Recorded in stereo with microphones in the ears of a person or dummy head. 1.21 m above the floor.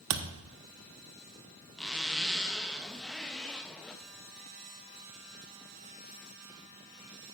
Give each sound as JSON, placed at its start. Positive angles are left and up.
{"t": 0.1, "sound": "a thud", "side_deg": -65, "distance_m": 1.1}
{"t": 1.8, "sound": "a zipper", "side_deg": 5, "distance_m": 0.7}